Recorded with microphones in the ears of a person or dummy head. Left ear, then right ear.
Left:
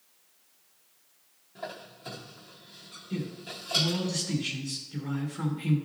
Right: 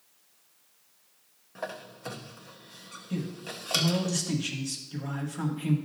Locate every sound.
1.6 s a squeak: 40° right (ahead or behind), 0.9 m
3.1 s a man speaking: 45° right (ahead or behind), 1.8 m